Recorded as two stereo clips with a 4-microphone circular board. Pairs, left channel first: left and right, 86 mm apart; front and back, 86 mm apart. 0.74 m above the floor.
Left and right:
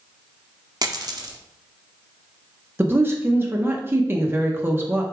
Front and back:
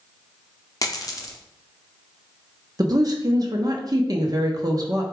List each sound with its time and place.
0.8 s a dropped coin: 50° right, 0.6 m
2.8 s a woman speaking: 150° right, 0.7 m